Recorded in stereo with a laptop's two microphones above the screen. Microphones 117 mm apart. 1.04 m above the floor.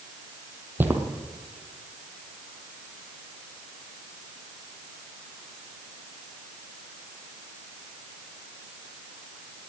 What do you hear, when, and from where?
0.8 s footsteps: 15° right (ahead or behind), 1.9 m